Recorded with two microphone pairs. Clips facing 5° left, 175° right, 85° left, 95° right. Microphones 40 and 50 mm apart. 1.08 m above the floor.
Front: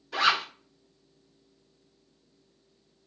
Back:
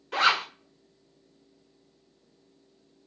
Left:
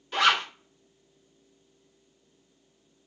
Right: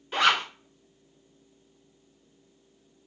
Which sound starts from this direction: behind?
A zipper, at 0.1 s.